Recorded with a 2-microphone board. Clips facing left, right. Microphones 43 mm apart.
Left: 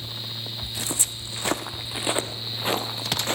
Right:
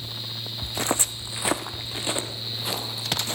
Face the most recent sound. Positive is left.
turn(degrees=40)  # may be behind; listen again after turning